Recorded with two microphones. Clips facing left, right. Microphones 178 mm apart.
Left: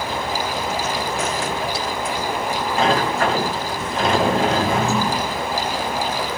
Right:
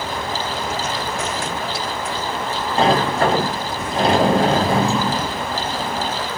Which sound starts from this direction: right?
A sliding door, at 2.8 s.